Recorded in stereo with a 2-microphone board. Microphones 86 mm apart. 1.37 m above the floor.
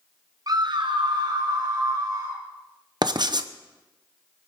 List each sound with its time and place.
0.5 s a scream: 45° right (ahead or behind), 0.8 m; by 2.4 s 40° right (ahead or behind), 2 m
3.0 s writing: 55° right (ahead or behind), 0.7 m